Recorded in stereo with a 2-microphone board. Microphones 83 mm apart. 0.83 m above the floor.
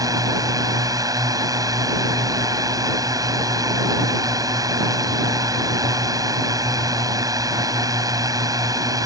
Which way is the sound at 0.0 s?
45° right (ahead or behind).